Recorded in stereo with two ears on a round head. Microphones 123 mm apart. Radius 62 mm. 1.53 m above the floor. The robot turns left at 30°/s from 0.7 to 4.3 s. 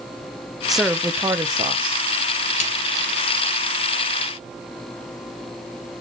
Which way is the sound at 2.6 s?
55° left (ahead or behind).